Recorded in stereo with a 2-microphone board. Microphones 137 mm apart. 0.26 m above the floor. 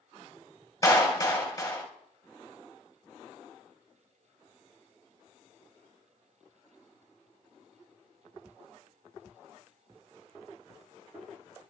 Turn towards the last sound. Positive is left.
turn(degrees=25)  # may be behind; listen again after turning